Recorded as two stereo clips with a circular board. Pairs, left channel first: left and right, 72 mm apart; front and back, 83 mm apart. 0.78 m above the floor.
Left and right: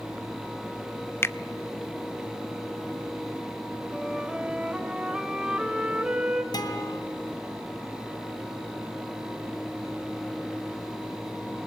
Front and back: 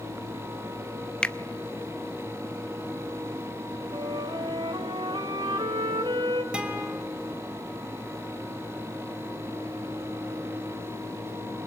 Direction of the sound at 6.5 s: 100° left.